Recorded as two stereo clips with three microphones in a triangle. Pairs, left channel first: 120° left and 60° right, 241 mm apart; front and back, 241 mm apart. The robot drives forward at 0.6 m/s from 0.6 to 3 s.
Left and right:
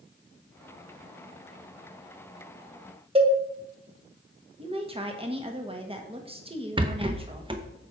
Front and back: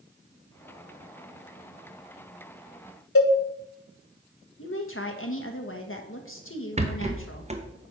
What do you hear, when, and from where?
3.1 s a cowbell: straight ahead, 0.8 m
4.6 s a woman speaking: straight ahead, 1.2 m
6.8 s a rattle: 125° right, 0.8 m